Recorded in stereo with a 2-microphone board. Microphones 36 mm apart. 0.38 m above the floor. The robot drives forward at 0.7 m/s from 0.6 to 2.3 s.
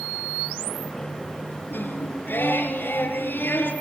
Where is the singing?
65° left (ahead or behind), 6.5 m; by 3.7 s 60° left (ahead or behind), 6.5 m.